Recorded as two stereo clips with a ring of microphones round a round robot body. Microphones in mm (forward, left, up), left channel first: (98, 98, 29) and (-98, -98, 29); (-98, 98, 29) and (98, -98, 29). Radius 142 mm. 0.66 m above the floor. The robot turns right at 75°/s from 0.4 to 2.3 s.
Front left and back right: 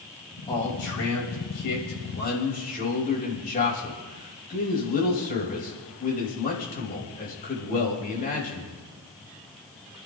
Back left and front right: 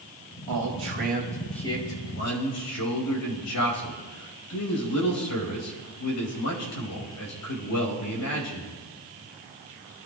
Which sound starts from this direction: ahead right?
A man speaking, at 0.5 s.